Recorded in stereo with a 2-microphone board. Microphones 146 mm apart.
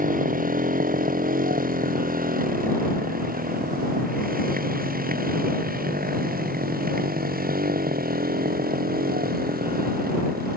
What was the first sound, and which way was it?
A motorcycle, 60° right (ahead or behind).